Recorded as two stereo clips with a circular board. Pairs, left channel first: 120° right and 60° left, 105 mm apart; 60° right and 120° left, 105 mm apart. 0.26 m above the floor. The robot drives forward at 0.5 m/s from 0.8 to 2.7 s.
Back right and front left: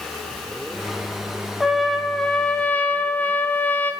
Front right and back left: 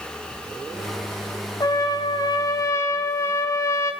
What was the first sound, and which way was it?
A trumpet, 25° right.